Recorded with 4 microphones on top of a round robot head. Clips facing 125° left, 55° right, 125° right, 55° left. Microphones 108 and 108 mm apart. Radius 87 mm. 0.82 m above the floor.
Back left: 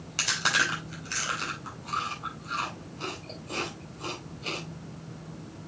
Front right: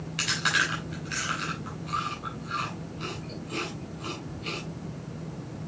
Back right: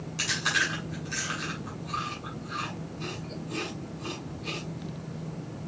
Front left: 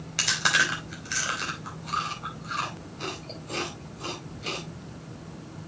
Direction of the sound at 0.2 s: 70° left.